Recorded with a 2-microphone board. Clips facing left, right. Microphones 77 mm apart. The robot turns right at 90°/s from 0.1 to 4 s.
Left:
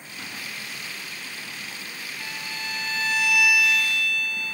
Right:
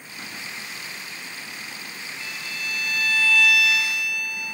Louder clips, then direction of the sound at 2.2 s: Even; 50° left.